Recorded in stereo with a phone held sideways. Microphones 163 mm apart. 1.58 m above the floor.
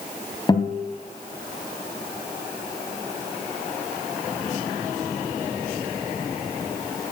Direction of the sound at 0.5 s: 25° left (ahead or behind).